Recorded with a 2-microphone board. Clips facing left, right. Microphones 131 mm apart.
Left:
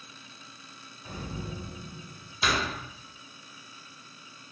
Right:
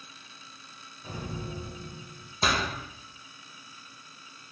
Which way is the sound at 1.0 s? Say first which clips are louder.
Right 1 dB; 25° right (ahead or behind).